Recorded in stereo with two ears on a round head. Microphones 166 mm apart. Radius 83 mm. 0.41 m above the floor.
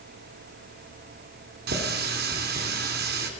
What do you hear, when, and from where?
1.7 s a running tap: 60° right (ahead or behind), 3 m